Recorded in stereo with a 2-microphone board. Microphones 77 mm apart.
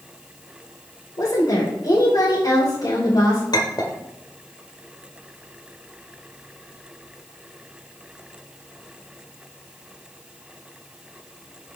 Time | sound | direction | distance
1.2 | a woman speaking | 60° left (ahead or behind) | 2.5 m
3.5 | a clink | 65° left (ahead or behind) | 1.5 m